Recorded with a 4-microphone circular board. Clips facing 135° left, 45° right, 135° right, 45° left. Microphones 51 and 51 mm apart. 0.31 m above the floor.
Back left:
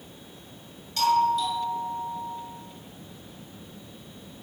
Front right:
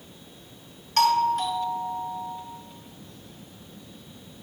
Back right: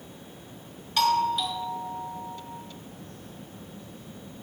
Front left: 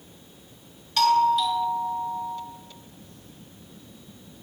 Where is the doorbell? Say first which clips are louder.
Front right 1 dB, front left 4 dB; 55° right, 2.0 m.